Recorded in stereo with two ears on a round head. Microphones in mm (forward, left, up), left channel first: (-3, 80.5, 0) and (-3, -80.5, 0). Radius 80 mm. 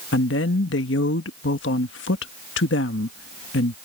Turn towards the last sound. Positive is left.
turn(degrees=75)  # may be behind; listen again after turning